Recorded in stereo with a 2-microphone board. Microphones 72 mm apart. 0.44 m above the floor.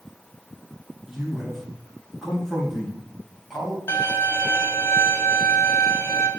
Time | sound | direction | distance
1.1 | a man speaking | centre (ahead or behind) | 3.5 m
3.9 | a violin | 30° left (ahead or behind) | 1.7 m